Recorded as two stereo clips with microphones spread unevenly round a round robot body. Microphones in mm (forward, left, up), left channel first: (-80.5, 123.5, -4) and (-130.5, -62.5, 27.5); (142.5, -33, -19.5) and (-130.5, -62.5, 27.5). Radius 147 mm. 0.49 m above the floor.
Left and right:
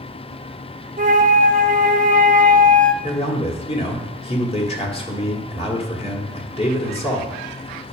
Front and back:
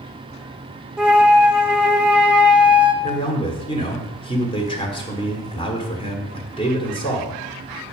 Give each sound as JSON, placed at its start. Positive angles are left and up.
{"t": 1.0, "sound": "a flute", "azimuth_deg": -75, "distance_m": 0.6}
{"t": 3.0, "sound": "a man speaking", "azimuth_deg": 55, "distance_m": 1.6}